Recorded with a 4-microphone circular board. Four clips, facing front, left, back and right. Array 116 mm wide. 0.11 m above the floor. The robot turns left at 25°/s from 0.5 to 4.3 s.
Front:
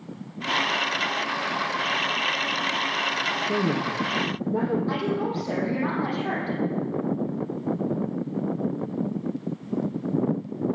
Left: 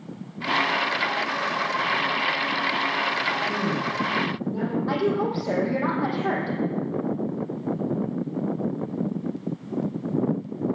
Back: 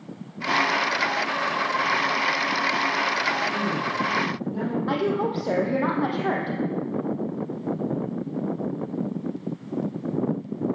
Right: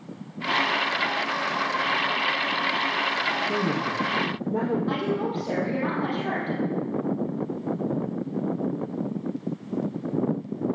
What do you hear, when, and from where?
3.5 s a woman speaking: 20° right, 5 m; by 4.8 s 40° right, 5 m
4.9 s a woman speaking: 170° left, 5 m